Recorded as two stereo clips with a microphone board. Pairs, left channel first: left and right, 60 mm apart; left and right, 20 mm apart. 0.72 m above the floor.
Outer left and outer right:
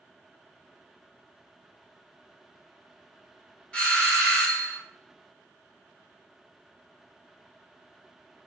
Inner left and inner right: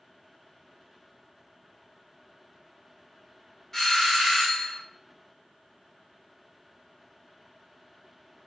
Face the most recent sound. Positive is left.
turn(degrees=15)  # may be behind; listen again after turning